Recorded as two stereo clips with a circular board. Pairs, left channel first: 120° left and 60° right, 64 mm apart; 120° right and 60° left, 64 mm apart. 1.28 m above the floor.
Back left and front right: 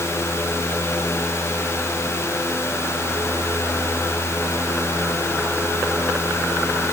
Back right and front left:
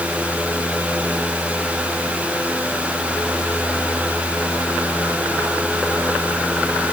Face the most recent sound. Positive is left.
No sound to turn to.